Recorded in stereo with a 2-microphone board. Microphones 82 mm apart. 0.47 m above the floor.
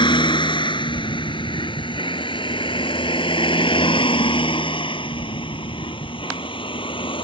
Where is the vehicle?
70° left (ahead or behind); by 7.2 s 85° left.